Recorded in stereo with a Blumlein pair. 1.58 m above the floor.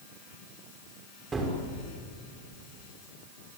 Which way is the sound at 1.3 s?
15° right.